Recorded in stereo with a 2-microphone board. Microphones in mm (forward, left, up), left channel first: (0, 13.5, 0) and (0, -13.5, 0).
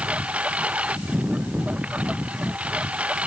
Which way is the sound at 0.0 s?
60° right (ahead or behind).